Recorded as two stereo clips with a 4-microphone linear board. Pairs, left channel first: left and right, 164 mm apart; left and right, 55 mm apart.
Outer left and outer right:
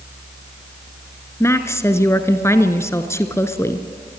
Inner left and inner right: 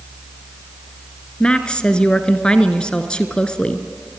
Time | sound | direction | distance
1.4 | a woman speaking | 15° left (ahead or behind) | 1.4 m